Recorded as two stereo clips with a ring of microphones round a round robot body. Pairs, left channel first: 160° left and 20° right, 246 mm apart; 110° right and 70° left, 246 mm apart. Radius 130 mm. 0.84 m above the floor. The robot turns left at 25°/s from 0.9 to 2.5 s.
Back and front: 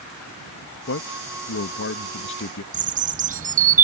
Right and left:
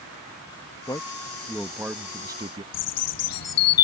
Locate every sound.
0.9 s a man speaking: 175° left; by 2.6 s 135° left
2.7 s a bird: 85° right